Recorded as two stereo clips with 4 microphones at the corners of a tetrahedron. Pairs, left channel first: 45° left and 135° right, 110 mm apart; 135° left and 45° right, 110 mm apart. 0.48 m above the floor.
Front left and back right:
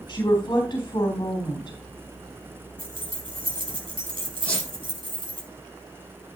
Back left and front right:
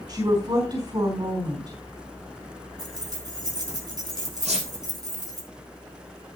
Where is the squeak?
35° right, 9 m.